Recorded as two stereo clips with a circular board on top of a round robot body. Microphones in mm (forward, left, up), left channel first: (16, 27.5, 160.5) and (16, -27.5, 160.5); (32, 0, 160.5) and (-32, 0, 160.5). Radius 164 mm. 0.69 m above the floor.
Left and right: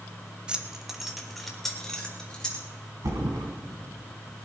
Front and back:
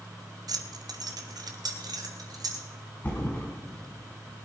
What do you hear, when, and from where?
0.5 s keys jangling: 165° right, 1.1 m; by 2.6 s 165° left, 2.5 m
3.0 s a thud: 65° right, 3 m